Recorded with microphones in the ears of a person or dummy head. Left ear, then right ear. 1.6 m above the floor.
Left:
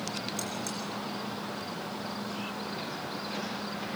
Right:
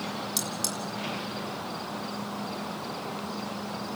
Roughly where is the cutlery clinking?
Right.